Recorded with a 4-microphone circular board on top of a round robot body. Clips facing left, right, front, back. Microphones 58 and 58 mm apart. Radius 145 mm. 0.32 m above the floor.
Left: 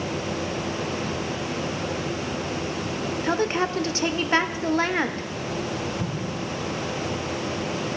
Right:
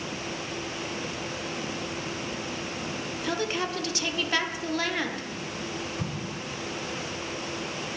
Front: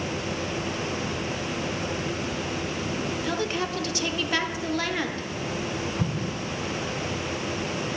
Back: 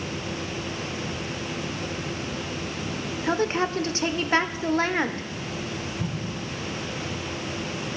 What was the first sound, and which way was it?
A woman speaking, 135° left.